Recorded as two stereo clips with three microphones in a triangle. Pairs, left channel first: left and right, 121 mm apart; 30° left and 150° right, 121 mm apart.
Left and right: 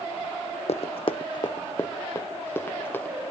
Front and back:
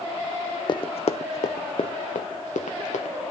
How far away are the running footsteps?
About 0.6 m.